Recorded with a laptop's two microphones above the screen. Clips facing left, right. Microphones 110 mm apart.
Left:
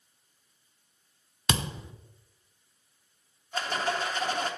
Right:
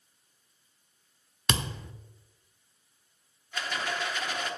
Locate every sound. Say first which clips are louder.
1.5 s a thud: left 1 dB; 20° left (ahead or behind), 0.9 m
3.5 s a rattle: left 4 dB; 35° left (ahead or behind), 0.9 m